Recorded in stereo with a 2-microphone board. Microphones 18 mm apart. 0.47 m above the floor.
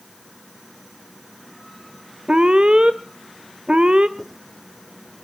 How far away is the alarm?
About 0.9 m.